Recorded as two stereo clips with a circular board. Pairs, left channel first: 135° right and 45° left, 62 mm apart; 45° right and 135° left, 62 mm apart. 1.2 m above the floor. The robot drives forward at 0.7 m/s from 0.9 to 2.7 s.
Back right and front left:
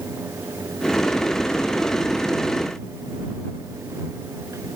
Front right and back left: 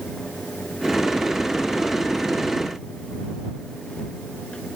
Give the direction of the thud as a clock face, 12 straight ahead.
I don't hear a thud.